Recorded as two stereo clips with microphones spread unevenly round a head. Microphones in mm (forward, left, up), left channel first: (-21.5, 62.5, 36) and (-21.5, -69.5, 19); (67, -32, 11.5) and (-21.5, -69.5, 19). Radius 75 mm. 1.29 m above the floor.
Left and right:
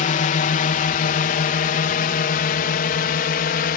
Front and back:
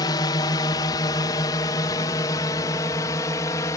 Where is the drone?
70° left; by 3.8 s 85° left.